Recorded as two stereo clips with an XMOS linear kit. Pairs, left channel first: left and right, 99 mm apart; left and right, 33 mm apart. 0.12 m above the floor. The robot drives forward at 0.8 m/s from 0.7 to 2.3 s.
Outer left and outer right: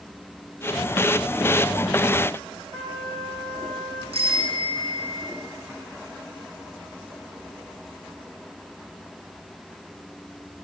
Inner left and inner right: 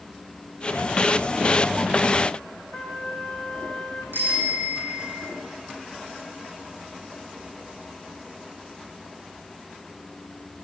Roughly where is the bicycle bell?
Right.